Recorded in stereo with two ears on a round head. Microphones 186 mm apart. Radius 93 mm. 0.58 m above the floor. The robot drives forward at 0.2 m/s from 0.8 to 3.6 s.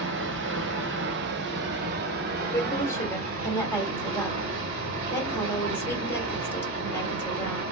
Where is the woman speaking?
15° left (ahead or behind), 1.4 m; by 7.6 s 10° left (ahead or behind), 1.6 m.